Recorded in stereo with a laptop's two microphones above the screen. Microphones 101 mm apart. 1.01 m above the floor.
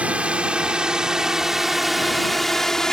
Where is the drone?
10° right (ahead or behind); by 2.9 s 5° left (ahead or behind).